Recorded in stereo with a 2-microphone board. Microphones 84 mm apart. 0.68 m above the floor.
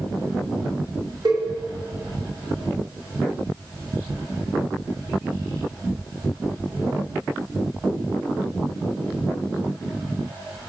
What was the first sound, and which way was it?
A cowbell, 60° right (ahead or behind).